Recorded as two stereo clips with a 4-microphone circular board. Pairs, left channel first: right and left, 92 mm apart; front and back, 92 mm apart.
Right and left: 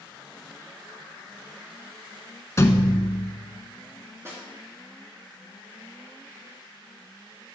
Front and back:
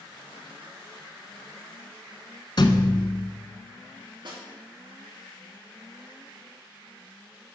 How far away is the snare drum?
About 3 m.